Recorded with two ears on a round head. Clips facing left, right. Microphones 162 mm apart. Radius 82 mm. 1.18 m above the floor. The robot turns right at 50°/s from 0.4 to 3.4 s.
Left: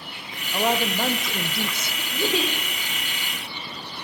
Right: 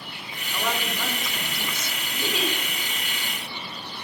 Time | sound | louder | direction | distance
0.5 | a woman speaking | left 6 dB | 30° left | 0.8 m
2.1 | a giggle | left 4 dB | 75° left (ahead or behind) | 1.9 m